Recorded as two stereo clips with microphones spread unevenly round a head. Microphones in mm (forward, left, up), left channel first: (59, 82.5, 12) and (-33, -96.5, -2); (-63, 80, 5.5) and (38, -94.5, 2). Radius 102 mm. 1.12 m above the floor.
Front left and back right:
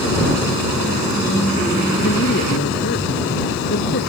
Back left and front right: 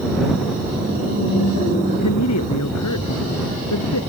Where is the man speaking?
105° left.